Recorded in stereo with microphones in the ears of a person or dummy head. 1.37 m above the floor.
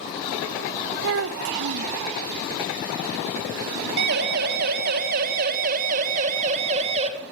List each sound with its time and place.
1.0 s a child speaking: 70° right (ahead or behind), 0.9 m
4.0 s a siren: 65° right (ahead or behind), 4 m; by 7.1 s 35° right (ahead or behind), 3.5 m